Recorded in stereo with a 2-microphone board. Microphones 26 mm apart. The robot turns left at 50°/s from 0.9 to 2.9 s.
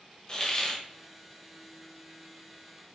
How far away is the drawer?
I don't hear a drawer.